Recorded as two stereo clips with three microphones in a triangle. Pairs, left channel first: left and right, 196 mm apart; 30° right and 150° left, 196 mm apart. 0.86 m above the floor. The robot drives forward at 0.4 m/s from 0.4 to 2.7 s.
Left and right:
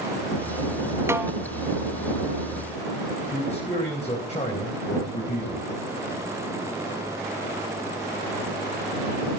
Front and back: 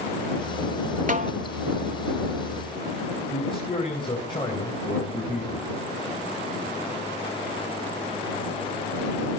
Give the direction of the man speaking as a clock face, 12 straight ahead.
11 o'clock.